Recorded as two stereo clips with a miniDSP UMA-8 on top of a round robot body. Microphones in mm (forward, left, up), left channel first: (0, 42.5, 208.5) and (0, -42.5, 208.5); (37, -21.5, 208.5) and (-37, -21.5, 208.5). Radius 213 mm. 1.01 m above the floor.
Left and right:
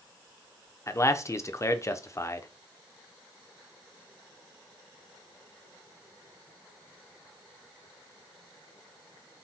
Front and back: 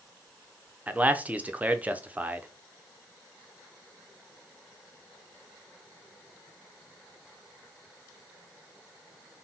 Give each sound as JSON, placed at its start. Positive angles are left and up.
{"t": 0.9, "sound": "a man speaking", "azimuth_deg": 120, "distance_m": 0.7}